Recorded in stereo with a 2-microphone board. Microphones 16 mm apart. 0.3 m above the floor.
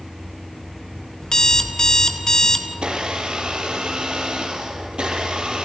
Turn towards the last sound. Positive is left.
turn(degrees=-85)